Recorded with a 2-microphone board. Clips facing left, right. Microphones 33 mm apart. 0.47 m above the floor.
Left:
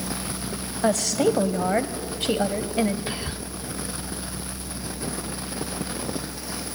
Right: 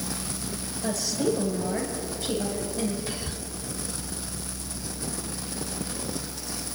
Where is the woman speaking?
65° left (ahead or behind), 2 m.